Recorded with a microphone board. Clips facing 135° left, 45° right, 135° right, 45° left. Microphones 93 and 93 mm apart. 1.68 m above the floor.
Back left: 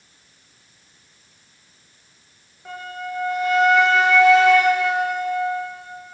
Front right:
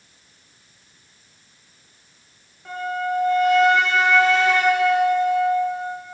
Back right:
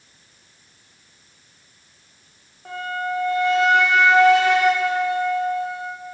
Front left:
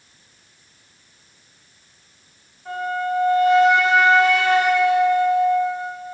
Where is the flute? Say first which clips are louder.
Front right 6 dB, front left 3 dB; 140° right, 0.6 m.